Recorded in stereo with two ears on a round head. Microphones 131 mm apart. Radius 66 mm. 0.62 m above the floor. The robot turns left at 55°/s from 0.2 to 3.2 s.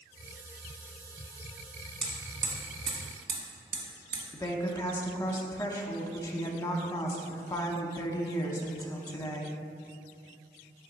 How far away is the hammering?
About 1.5 m.